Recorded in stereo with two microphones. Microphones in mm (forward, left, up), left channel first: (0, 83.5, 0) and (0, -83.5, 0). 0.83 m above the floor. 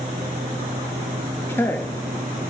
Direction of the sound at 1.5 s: 15° left (ahead or behind).